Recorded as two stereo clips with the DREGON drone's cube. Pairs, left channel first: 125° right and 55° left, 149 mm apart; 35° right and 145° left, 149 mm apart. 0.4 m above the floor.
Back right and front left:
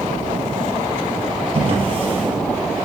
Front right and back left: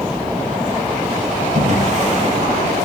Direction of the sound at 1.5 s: 110° left.